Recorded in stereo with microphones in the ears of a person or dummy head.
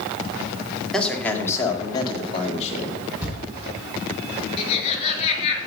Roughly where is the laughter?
Left.